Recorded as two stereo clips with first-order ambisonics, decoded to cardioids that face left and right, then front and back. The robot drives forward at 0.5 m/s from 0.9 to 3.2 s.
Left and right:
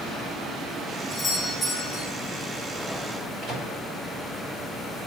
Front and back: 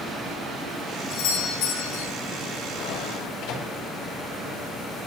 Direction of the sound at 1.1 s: 15° left.